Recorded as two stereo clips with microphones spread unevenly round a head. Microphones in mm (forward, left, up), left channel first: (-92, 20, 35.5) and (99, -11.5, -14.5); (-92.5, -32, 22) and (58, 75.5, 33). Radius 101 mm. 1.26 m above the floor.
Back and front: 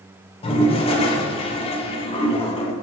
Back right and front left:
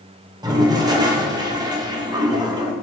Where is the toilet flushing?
105° left, 0.6 m.